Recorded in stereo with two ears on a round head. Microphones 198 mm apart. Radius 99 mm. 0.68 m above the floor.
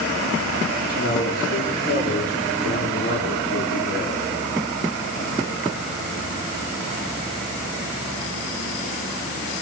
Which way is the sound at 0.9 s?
40° left (ahead or behind).